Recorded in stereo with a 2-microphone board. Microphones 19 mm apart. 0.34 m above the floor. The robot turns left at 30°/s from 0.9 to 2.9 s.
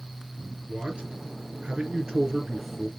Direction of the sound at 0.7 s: 110° right.